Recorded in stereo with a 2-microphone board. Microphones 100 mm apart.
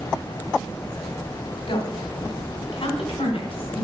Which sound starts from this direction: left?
A woman speaking, at 1.7 s.